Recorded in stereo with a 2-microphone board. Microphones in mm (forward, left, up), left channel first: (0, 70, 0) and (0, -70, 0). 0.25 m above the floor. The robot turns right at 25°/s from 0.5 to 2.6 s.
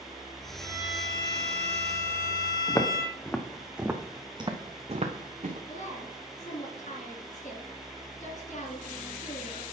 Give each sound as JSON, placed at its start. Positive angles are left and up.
{"t": 0.6, "sound": "a violin", "azimuth_deg": 30, "distance_m": 2.5}
{"t": 2.7, "sound": "footsteps", "side_deg": 25, "distance_m": 1.3}
{"t": 5.7, "sound": "a woman speaking", "side_deg": 60, "distance_m": 2.5}